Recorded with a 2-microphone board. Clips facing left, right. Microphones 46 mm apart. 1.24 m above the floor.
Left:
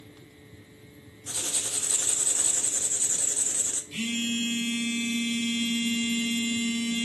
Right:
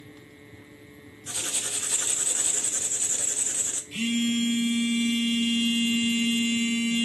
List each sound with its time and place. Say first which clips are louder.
1.3 s writing: right 1 dB; 35° right (ahead or behind), 0.5 m
3.9 s a phone buzzing: right 4 dB; 20° right (ahead or behind), 4 m